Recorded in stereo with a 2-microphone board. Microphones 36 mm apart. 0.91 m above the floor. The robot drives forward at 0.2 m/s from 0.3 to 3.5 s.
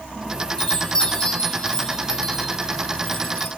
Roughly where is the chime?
Left.